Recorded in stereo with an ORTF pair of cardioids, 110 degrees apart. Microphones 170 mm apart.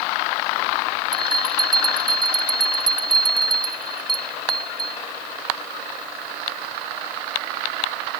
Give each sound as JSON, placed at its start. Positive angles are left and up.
{"t": 1.1, "sound": "a bell", "azimuth_deg": -25}